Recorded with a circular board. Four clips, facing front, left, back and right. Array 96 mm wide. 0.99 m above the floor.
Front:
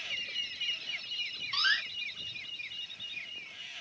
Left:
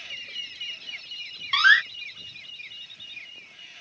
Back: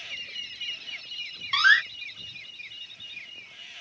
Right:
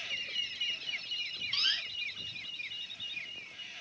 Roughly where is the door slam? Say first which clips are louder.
Left 23 dB, back 11 dB; behind left.